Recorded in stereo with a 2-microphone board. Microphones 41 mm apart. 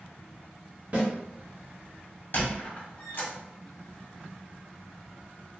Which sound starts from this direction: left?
A squeak, at 2.3 s.